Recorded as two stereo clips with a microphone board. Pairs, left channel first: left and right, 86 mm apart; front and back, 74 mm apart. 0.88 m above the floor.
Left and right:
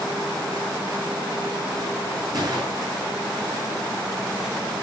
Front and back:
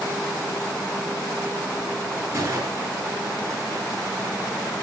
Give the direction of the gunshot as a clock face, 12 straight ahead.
4 o'clock.